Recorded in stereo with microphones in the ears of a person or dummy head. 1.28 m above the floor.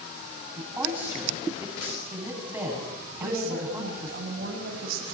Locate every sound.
0.6 s a woman speaking: 10° right (ahead or behind), 9 m
3.2 s a woman speaking: 55° right (ahead or behind), 7 m